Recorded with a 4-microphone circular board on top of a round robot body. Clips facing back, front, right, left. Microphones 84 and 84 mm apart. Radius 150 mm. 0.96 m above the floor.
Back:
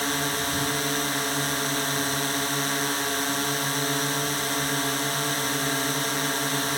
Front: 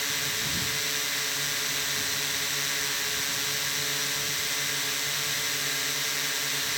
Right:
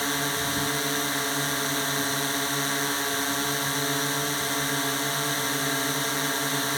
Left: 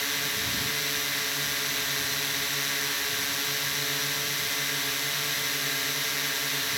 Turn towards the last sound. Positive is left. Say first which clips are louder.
# back 7 dB, right 6 dB
turn(degrees=-140)